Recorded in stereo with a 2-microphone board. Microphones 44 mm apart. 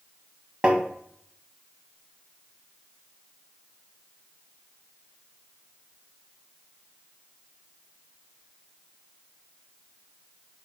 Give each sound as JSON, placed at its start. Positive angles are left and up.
{"t": 0.6, "sound": "tapping", "side_deg": -20, "distance_m": 0.6}